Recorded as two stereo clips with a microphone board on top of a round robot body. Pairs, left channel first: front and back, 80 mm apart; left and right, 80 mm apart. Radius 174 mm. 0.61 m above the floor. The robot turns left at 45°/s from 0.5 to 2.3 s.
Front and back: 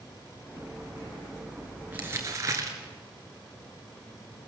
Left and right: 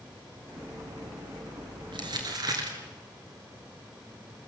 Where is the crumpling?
110° right, 2.5 m; by 2.8 s 125° right, 2.5 m.